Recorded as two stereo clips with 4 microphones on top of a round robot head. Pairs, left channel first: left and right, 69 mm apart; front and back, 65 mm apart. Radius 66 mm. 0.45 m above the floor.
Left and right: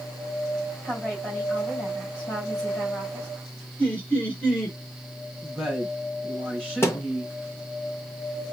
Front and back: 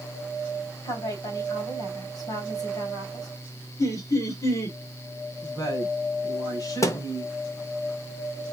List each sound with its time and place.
0.8 s a woman speaking: 15° left, 3.5 m
3.8 s laughter: 20° left, 2.5 m
5.4 s a woman speaking: 10° left, 3 m
6.8 s a thud: 35° left, 1.0 m